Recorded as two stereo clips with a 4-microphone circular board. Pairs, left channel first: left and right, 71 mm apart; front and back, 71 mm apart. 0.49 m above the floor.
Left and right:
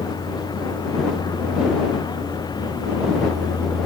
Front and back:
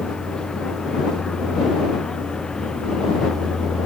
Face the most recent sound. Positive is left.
turn(degrees=80)